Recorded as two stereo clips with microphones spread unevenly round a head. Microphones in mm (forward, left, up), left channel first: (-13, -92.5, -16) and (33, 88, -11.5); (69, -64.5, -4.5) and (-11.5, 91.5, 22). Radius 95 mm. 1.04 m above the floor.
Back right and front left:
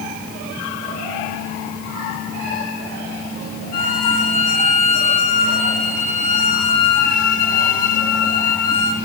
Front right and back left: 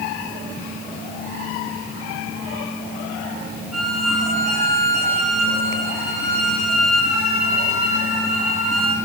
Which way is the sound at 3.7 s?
155° right.